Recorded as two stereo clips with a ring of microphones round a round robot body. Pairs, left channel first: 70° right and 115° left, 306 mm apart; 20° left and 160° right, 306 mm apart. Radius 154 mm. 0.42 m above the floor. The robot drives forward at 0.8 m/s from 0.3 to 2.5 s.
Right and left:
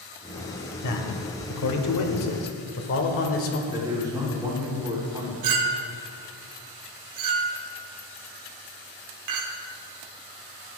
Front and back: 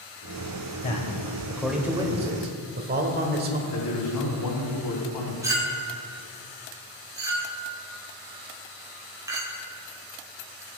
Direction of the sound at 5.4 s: 125° left.